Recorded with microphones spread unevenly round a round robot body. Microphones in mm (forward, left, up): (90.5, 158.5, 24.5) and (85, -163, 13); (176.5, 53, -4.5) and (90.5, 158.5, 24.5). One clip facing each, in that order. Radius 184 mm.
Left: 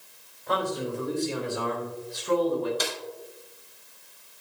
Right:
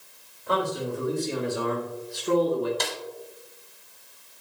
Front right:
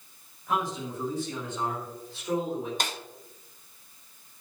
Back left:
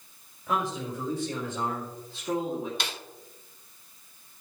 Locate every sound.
0.5 s a man speaking: 170° right, 4 m; by 2.7 s 140° right, 2.5 m
2.8 s a snare drum: 5° left, 1.0 m